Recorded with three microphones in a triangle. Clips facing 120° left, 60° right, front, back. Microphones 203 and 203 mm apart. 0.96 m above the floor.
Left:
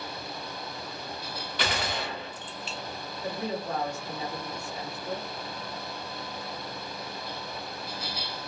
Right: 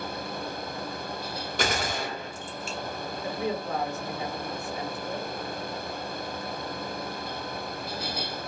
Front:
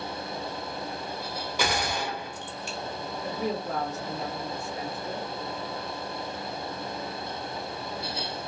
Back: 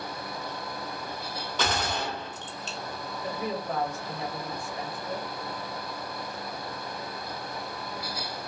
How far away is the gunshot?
About 0.8 m.